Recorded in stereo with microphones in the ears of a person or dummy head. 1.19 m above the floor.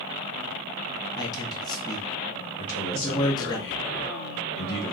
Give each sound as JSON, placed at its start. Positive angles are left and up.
{"t": 1.2, "sound": "a man speaking", "side_deg": 20, "distance_m": 1.1}
{"t": 2.6, "sound": "a man speaking", "side_deg": 65, "distance_m": 1.6}